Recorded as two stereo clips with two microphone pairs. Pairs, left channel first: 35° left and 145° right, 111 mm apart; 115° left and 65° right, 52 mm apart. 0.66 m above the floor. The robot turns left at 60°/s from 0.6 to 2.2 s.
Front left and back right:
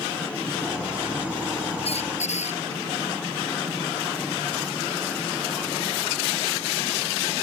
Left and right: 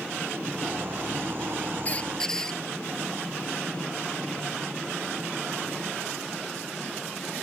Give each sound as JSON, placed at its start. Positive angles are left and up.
{"t": 1.9, "sound": "a squeak", "azimuth_deg": 60}